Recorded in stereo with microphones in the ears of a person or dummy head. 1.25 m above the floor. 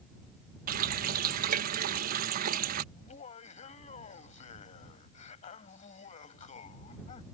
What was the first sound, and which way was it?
A running tap, 50° right (ahead or behind).